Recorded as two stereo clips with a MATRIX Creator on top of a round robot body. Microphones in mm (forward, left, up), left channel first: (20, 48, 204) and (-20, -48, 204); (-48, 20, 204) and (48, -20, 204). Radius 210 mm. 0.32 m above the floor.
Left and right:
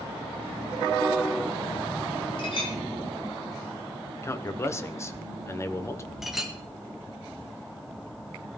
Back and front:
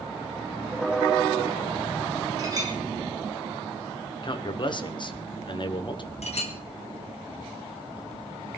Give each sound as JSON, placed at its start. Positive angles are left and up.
{"t": 2.4, "sound": "a clink", "azimuth_deg": 30, "distance_m": 4.0}
{"t": 4.2, "sound": "a man speaking", "azimuth_deg": 125, "distance_m": 1.5}
{"t": 6.2, "sound": "a clink", "azimuth_deg": 160, "distance_m": 2.0}